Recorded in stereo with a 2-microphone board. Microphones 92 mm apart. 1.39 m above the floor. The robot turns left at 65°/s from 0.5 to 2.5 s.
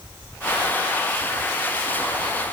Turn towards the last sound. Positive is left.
No sound to turn to.